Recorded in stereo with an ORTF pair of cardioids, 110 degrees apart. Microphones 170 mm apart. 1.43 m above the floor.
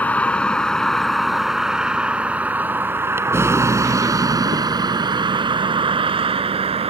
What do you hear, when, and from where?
0.0 s a vehicle: 10° left; by 6.9 s 35° right